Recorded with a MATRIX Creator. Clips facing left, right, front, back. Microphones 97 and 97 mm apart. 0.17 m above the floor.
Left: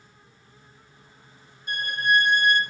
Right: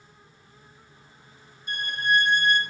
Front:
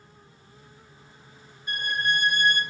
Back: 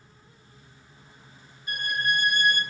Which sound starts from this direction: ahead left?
A violin, at 1.7 s.